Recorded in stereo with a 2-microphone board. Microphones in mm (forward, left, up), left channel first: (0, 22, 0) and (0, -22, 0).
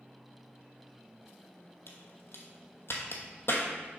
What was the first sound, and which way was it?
A crack, 60° left (ahead or behind).